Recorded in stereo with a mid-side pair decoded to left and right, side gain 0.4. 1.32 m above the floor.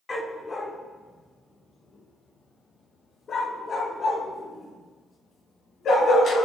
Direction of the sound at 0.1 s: 25° left.